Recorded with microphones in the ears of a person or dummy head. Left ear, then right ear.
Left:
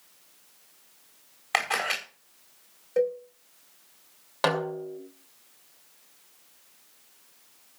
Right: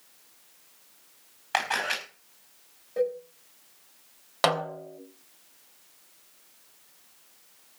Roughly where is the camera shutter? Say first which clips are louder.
Left 1 dB; left.